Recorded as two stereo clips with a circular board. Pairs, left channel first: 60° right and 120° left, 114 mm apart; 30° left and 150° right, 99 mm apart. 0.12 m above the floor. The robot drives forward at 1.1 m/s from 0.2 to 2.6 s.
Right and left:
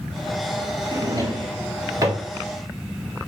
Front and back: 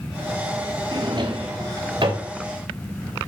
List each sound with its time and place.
0.9 s a drawer: 175° left, 2 m